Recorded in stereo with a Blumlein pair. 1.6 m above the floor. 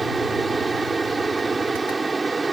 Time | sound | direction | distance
0.0 | a fan | 10° right | ?